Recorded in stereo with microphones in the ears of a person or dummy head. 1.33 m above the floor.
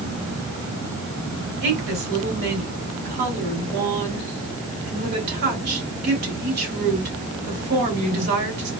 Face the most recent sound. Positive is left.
turn(degrees=-60)  # may be behind; listen again after turning